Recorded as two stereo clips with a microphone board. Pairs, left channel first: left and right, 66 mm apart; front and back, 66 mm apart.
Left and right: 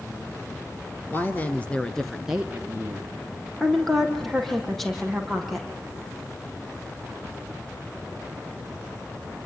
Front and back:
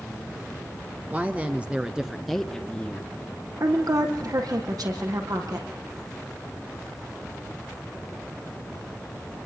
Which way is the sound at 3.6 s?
175° left.